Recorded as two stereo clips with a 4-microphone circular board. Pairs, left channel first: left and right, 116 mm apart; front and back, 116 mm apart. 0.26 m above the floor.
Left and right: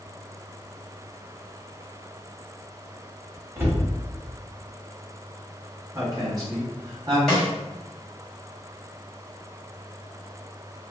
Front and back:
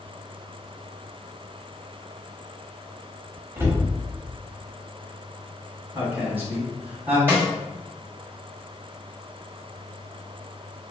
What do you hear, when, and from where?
3.6 s a cupboard door: 140° right, 1.0 m
6.0 s a woman speaking: 115° right, 1.5 m
7.3 s a snare drum: 175° left, 1.4 m